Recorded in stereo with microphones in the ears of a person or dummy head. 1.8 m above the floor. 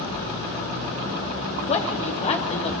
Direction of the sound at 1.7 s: 35° left (ahead or behind).